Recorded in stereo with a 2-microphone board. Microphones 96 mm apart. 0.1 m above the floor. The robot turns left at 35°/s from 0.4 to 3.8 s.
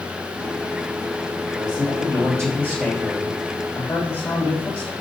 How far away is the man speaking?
About 4 m.